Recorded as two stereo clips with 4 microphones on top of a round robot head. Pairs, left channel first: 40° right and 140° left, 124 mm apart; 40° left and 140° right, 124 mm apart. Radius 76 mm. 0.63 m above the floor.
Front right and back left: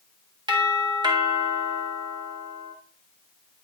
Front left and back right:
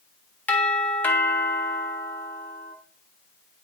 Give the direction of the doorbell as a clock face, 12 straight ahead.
8 o'clock.